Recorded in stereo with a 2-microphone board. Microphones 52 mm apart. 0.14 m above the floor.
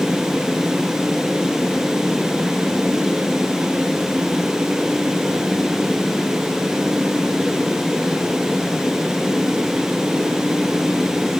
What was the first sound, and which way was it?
Only background noise.